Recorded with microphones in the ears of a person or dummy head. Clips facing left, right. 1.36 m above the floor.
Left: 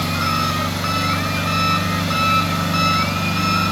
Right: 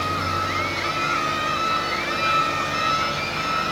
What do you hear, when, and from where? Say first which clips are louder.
0.0 s an engine running: left 5 dB; 50° left (ahead or behind), 4 m